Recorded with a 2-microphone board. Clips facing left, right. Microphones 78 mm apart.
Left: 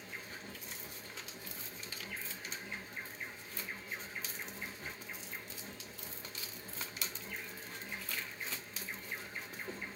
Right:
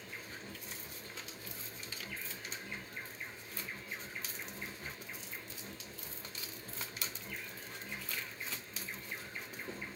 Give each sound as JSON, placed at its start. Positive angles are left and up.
{"t": 0.0, "sound": "an insect", "side_deg": 10, "distance_m": 1.3}